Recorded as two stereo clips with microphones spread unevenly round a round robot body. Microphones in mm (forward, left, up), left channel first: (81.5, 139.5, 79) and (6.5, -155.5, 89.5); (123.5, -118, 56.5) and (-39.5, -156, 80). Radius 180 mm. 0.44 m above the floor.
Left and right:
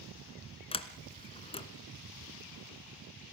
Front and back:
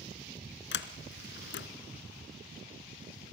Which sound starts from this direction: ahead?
A sliding door, at 0.7 s.